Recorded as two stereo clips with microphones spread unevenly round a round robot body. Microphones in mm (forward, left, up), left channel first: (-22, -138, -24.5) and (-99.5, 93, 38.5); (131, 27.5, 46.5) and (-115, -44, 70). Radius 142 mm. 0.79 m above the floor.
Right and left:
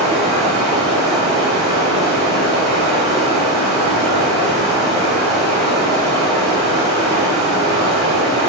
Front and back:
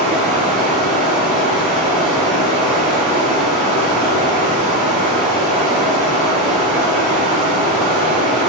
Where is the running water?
160° right, 1.6 m.